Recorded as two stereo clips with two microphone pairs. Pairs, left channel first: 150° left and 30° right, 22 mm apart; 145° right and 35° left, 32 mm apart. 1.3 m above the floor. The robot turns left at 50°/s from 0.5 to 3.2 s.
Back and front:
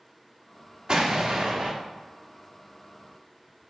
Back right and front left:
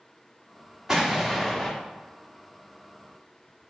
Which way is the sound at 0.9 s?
20° right.